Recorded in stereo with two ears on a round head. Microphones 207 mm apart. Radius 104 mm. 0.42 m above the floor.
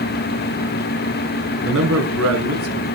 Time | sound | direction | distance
1.6 | a man speaking | 60° right (ahead or behind) | 4.5 m